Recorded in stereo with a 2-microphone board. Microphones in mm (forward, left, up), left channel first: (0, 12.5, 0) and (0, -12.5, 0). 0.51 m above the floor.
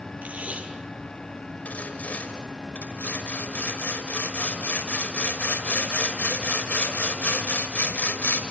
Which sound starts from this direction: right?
Tape being pulled, at 0.2 s.